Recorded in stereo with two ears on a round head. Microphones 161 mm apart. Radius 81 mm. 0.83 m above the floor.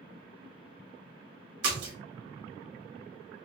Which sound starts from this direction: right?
A splash, at 1.6 s.